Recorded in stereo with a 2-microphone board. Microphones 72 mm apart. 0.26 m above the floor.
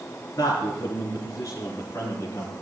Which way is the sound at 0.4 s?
50° left (ahead or behind).